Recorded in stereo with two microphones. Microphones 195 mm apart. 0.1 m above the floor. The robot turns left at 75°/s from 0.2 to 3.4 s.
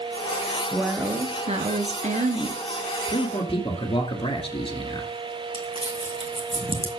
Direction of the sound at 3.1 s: 35° left (ahead or behind).